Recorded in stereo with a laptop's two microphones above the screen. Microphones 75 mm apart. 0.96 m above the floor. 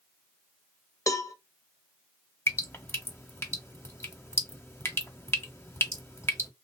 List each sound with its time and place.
1.1 s a cowbell: 45° left (ahead or behind), 1.0 m
2.5 s dripping: 30° left (ahead or behind), 1.0 m